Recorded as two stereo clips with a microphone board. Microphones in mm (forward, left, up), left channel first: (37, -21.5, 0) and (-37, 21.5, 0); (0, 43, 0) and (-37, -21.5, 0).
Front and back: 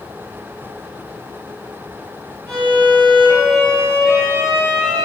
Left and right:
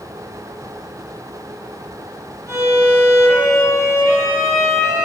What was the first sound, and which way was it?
A violin, 50° left.